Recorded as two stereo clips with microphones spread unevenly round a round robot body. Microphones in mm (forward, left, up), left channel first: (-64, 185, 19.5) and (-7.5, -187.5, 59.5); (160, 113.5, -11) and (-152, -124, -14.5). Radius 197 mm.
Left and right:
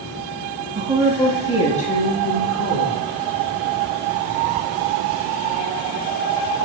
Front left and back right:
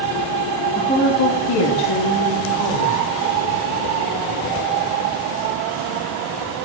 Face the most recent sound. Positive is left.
turn(degrees=40)